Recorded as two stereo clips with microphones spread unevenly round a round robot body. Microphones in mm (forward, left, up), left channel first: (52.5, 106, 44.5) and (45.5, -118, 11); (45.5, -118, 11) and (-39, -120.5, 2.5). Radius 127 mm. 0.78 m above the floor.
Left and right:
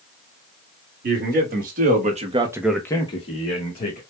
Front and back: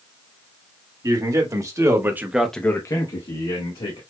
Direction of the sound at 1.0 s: 140° right.